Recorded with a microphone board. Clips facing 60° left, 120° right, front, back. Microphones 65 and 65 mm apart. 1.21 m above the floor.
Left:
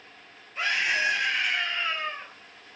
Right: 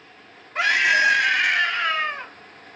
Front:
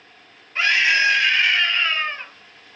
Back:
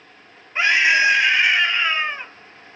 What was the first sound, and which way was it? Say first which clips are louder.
A scream: right 8 dB, back 2 dB; 110° right.